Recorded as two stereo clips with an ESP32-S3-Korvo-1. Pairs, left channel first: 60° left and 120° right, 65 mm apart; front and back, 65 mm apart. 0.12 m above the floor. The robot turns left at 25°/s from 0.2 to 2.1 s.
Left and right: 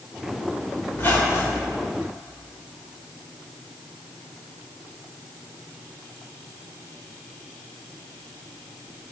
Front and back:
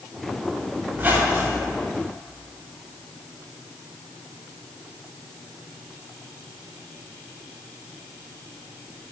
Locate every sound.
0.9 s a squeak: 120° left, 4 m; by 1.7 s 100° left, 4 m